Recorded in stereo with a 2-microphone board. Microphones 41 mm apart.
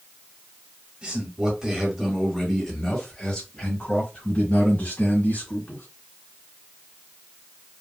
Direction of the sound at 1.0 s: 30° right (ahead or behind).